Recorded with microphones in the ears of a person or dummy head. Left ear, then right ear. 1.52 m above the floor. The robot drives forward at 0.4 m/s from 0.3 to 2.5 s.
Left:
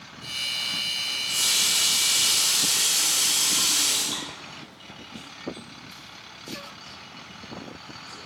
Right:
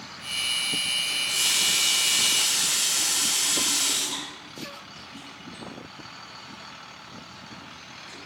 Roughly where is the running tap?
Centre.